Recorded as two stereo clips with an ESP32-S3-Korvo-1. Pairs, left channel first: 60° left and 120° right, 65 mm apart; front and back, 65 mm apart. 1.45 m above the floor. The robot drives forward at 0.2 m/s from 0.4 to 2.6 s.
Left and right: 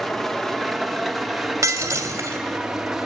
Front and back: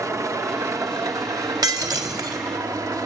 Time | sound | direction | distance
0.0 | an engine running | 145° left | 1.2 m
1.6 | breaking glass | 165° right | 3 m